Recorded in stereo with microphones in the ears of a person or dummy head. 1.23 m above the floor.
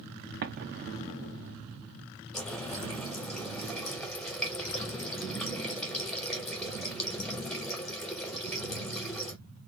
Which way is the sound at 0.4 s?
45° right (ahead or behind).